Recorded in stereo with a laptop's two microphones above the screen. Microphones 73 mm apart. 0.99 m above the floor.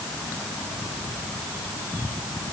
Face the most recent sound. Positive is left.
No sound to turn to.